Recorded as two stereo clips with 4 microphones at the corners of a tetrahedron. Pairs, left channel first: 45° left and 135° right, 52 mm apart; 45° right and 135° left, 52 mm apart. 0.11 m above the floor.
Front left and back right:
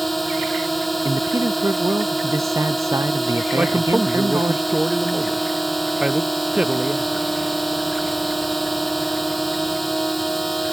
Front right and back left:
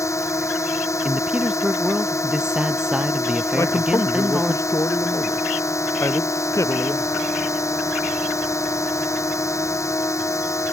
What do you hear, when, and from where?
0.0 s a drone: 45° right
1.1 s a man speaking: 150° right
3.5 s a man speaking: 65° right